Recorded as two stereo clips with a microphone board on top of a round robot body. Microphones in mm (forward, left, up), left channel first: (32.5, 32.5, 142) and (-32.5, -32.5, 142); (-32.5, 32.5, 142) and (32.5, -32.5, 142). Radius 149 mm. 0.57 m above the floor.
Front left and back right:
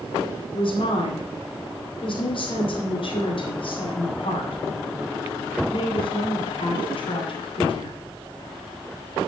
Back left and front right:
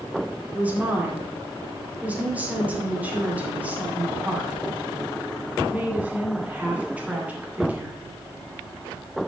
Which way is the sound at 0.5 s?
30° left.